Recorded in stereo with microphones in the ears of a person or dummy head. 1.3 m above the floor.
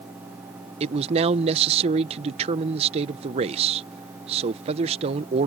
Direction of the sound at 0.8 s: 35° right (ahead or behind).